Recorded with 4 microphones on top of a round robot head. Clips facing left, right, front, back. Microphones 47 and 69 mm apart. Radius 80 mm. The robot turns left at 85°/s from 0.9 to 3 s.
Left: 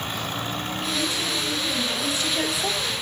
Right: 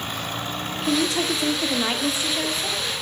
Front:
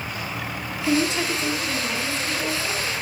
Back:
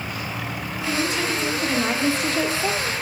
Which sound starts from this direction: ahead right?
A woman speaking, at 0.9 s.